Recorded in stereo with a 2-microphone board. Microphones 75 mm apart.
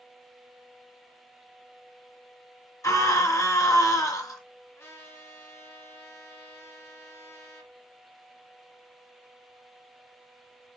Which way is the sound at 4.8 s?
35° left (ahead or behind).